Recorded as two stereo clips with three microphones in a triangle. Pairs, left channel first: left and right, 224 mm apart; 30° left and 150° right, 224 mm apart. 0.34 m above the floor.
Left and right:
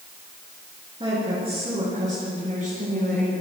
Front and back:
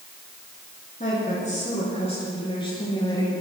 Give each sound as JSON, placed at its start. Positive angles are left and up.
{"t": 1.0, "sound": "a woman speaking", "azimuth_deg": -25, "distance_m": 5.5}